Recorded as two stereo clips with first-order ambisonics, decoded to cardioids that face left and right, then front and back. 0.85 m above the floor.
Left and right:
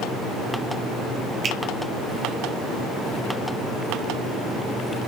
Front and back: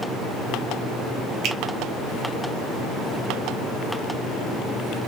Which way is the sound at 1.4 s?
145° right.